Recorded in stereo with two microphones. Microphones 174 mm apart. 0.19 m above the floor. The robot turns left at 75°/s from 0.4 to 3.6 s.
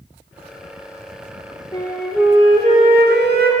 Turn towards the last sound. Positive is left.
turn(degrees=-120)